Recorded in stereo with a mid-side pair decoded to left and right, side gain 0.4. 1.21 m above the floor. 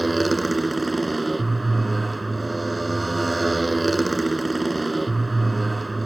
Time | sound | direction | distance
0.0 | a motorcycle | 25° right | ?